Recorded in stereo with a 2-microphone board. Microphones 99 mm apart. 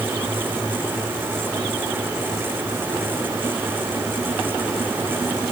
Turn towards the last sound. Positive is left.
No sound to turn to.